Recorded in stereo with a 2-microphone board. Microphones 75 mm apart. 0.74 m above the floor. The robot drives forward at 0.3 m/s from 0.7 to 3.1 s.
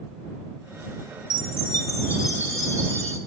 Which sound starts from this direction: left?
A chime, at 1.3 s.